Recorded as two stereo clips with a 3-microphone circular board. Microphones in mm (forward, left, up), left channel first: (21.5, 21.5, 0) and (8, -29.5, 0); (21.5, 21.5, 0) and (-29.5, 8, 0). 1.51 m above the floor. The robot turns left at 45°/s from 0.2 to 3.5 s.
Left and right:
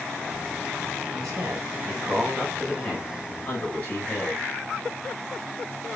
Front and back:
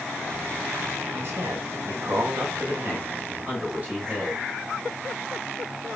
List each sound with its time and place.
1.1 s a man speaking: 120° right, 8 m; by 4.5 s 135° left, 8 m